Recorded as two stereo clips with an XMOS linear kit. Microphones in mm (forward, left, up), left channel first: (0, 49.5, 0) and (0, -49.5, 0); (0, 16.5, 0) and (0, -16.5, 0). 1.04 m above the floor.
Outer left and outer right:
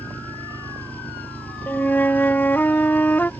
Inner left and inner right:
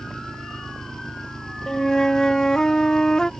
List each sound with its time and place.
0.0 s an engine running: 15° left (ahead or behind)
1.7 s a flute: 20° left (ahead or behind)